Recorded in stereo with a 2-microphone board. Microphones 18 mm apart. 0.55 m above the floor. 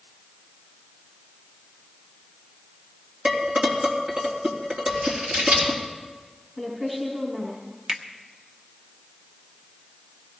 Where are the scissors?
85° right, 7.5 m.